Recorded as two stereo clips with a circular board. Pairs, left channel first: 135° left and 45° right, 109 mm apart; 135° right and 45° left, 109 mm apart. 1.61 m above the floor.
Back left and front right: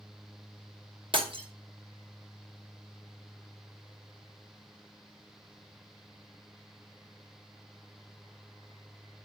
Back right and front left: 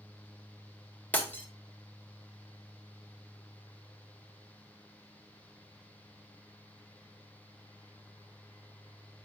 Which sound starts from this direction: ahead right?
Breaking glass, at 1.1 s.